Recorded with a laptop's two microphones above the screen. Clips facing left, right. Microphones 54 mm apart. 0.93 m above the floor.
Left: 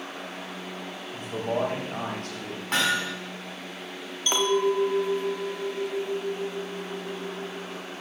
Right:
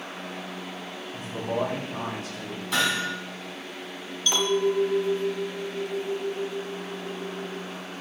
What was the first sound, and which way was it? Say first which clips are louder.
A man speaking: left 1 dB; 80° left.